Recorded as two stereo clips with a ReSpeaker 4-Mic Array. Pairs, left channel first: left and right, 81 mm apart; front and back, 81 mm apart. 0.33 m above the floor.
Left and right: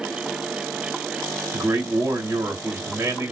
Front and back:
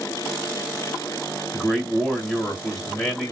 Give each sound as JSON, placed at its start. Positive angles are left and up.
{"t": 1.5, "sound": "a man speaking", "azimuth_deg": -85, "distance_m": 1.7}